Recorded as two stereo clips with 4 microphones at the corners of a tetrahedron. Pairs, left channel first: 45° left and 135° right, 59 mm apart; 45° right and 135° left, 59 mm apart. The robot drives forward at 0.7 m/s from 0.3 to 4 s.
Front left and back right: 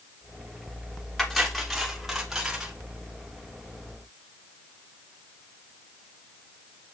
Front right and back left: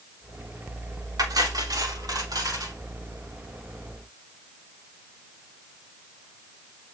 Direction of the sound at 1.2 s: 130° left.